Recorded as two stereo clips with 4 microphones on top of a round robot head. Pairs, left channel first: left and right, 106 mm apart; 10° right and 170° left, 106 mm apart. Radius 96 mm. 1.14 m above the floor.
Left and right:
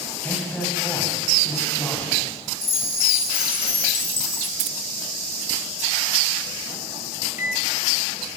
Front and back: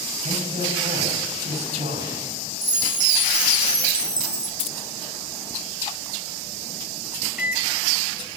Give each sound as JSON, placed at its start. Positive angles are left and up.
{"t": 0.2, "sound": "a man speaking", "azimuth_deg": 165, "distance_m": 6.5}
{"t": 2.6, "sound": "a chime", "azimuth_deg": 120, "distance_m": 8.0}
{"t": 4.6, "sound": "keys jangling", "azimuth_deg": -55, "distance_m": 0.6}
{"t": 7.4, "sound": "a microwave", "azimuth_deg": 90, "distance_m": 1.3}